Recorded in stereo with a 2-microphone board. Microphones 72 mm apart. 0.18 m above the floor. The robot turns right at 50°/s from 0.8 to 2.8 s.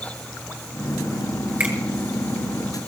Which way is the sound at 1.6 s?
25° right (ahead or behind).